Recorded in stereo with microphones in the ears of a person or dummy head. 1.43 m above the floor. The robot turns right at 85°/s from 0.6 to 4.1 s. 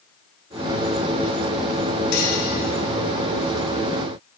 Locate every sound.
2.1 s cutlery clinking: 65° left (ahead or behind), 6.5 m; by 2.4 s 50° left (ahead or behind), 6.5 m